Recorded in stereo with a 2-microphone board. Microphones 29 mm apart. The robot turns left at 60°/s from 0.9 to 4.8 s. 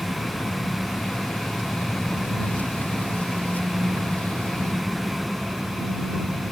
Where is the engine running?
90° left; by 6.5 s 140° right.